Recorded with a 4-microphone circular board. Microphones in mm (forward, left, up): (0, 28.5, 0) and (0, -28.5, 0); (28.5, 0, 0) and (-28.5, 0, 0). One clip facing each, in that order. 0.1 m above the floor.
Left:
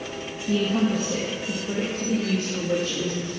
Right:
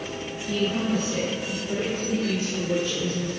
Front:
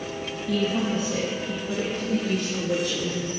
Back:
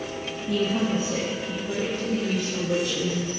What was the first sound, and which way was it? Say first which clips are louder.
A woman speaking: left 3 dB, back 1 dB; 125° left.